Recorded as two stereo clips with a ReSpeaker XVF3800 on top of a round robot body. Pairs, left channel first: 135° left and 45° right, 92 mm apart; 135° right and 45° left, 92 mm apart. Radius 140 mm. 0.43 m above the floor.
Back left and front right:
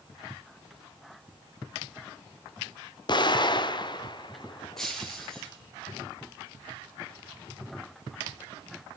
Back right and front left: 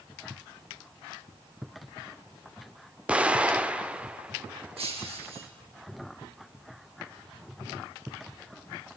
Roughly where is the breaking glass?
Ahead left.